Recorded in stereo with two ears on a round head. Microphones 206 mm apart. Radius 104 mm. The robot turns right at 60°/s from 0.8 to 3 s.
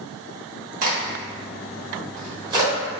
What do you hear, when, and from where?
0.8 s a crack: 40° right (ahead or behind), 1.3 m; by 2.7 s 10° right (ahead or behind), 1.3 m